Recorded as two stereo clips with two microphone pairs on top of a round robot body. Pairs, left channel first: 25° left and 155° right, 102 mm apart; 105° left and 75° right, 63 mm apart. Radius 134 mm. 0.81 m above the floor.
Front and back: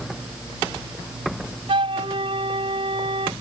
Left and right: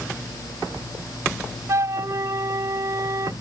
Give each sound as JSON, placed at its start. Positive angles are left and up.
{"t": 1.7, "sound": "a flute", "azimuth_deg": -120}